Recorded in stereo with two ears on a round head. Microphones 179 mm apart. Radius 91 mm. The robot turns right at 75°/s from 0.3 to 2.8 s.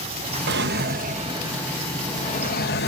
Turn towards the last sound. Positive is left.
turn(degrees=80)